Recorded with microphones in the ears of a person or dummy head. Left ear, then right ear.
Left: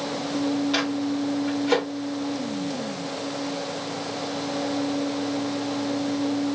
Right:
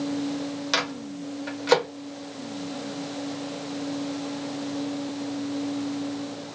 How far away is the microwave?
About 0.8 m.